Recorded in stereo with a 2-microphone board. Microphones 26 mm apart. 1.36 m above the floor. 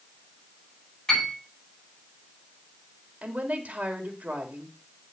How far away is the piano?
About 8 m.